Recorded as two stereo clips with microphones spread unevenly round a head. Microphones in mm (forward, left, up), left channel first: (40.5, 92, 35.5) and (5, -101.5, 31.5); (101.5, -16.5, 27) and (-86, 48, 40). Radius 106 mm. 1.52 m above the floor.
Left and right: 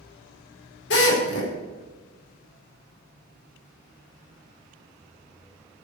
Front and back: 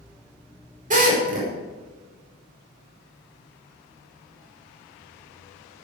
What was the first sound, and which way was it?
A drill, 115° left.